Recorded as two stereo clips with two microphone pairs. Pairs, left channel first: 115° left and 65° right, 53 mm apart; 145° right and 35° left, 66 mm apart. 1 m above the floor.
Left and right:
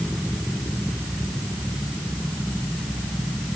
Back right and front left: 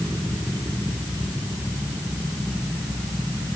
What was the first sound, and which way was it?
Only background noise.